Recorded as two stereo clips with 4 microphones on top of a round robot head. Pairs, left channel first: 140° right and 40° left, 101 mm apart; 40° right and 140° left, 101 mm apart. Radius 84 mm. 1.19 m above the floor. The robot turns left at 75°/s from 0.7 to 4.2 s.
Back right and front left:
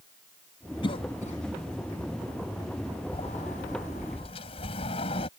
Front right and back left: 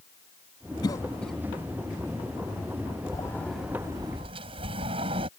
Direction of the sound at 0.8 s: 95° right.